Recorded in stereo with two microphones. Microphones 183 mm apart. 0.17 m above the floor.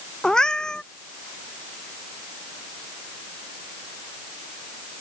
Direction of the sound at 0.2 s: 5° left (ahead or behind).